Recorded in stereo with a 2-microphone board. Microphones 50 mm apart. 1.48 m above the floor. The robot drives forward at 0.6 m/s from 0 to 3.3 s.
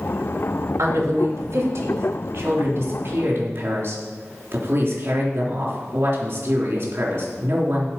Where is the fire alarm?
No fire alarm in this recording.